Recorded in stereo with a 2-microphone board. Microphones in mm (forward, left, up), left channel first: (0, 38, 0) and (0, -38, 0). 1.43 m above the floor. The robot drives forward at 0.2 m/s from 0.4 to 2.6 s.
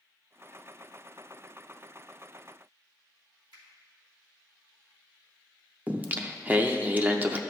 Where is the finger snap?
70° right (ahead or behind), 3 m.